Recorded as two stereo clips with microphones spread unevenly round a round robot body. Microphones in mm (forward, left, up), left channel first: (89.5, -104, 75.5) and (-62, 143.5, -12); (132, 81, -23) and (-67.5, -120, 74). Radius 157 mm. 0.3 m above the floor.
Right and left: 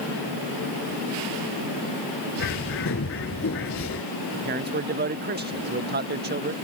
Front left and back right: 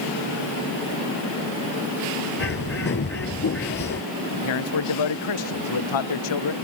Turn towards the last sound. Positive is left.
turn(degrees=65)